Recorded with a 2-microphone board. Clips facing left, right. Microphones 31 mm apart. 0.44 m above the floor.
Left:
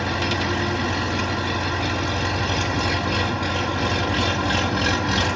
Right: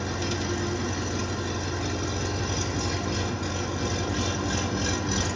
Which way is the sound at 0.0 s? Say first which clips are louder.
Left 7 dB; 60° left (ahead or behind).